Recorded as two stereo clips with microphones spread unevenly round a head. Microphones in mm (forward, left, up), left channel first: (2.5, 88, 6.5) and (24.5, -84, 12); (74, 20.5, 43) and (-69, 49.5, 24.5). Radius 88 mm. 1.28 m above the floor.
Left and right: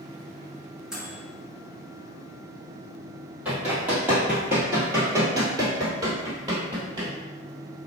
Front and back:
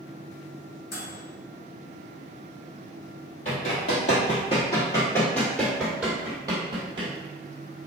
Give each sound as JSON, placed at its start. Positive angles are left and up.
{"t": 0.9, "sound": "a microwave", "azimuth_deg": 5, "distance_m": 1.1}
{"t": 3.5, "sound": "running footsteps", "azimuth_deg": -5, "distance_m": 1.8}